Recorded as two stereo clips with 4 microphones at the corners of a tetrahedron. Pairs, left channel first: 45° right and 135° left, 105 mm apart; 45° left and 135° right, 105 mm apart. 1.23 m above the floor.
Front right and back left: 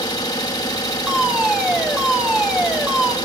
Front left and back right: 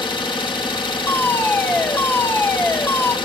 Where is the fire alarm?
65° left, 0.8 m.